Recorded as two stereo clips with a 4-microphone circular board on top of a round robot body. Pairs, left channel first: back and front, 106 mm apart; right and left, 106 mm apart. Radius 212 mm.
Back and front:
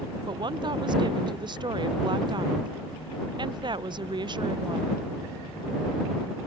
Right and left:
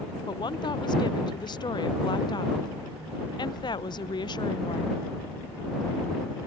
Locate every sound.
0.3 s a woman speaking: 45° right